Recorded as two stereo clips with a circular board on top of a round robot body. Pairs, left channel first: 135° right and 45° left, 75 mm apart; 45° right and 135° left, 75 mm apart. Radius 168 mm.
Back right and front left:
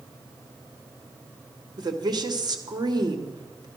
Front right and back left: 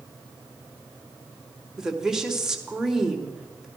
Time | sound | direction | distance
1.8 | a woman speaking | 50° left | 2 m